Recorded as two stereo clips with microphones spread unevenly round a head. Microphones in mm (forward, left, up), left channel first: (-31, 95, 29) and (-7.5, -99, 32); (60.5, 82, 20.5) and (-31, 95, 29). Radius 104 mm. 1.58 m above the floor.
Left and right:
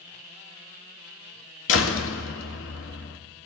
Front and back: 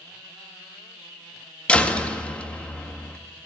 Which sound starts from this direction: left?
A door slam, at 1.7 s.